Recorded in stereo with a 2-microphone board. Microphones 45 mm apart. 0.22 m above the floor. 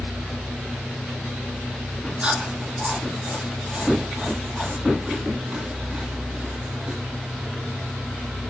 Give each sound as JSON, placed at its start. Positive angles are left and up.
{"t": 2.2, "sound": "chewing", "side_deg": -25, "distance_m": 2.0}